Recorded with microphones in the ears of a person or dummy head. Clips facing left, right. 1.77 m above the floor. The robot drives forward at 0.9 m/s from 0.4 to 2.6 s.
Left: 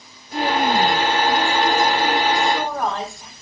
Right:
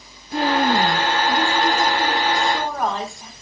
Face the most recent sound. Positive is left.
turn(degrees=0)  # may be behind; listen again after turning